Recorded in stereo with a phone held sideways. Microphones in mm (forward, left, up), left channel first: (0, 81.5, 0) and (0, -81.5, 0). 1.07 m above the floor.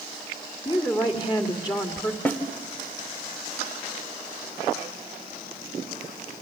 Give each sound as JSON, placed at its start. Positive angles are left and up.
{"t": 0.7, "sound": "a woman speaking", "side_deg": 25, "distance_m": 2.0}
{"t": 2.2, "sound": "a snare drum", "side_deg": 10, "distance_m": 1.7}